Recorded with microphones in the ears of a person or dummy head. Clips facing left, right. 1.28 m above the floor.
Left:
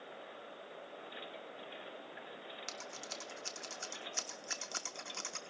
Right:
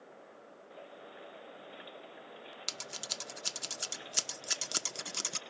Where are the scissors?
40° right (ahead or behind), 0.6 m.